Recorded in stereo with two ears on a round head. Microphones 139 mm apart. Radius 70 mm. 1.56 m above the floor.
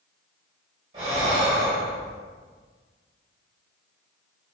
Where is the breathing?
40° right (ahead or behind), 2.0 m.